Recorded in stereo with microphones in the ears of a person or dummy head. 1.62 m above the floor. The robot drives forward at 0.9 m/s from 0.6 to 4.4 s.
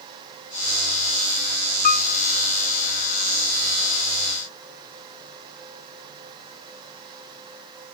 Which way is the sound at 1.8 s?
45° left (ahead or behind).